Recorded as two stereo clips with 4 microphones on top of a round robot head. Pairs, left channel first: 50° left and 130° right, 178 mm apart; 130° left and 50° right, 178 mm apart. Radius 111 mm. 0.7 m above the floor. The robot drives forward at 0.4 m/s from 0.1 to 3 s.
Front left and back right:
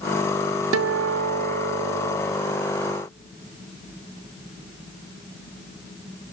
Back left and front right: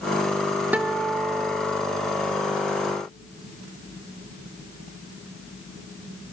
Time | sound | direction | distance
0.7 | a guitar | 130° right | 0.5 m